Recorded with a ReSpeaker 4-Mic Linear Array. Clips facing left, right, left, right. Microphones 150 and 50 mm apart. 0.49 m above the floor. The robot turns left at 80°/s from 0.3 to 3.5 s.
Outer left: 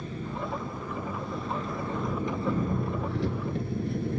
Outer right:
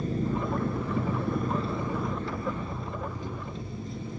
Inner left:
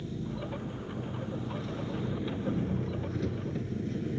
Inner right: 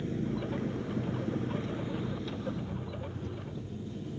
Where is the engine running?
40° right, 2.5 m; by 4.2 s 65° left, 2.5 m.